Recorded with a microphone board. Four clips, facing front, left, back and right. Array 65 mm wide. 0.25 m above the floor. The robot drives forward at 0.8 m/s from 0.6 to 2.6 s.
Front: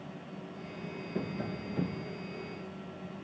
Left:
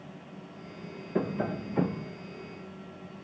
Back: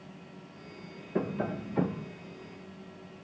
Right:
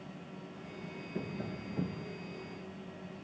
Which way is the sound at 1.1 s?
120° left.